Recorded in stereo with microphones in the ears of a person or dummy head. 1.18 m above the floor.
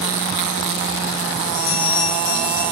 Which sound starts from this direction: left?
A bell, at 1.5 s.